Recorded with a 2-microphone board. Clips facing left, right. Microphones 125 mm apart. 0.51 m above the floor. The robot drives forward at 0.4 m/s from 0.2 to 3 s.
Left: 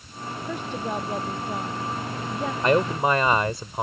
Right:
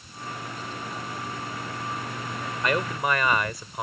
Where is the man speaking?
30° left (ahead or behind).